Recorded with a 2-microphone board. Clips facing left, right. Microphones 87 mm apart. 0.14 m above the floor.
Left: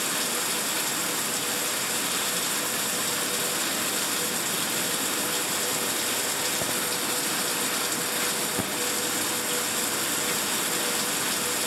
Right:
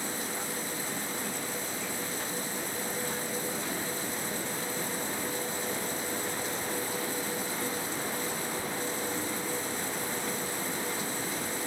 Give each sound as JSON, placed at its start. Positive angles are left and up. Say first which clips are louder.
{"t": 0.0, "sound": "running water", "louder": "left 5 dB", "side_deg": 80}